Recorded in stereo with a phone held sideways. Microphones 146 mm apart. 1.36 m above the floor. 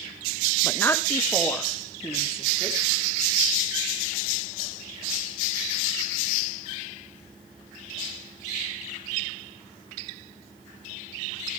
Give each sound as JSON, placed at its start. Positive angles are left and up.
{"t": 0.6, "sound": "a woman speaking", "side_deg": 15, "distance_m": 1.4}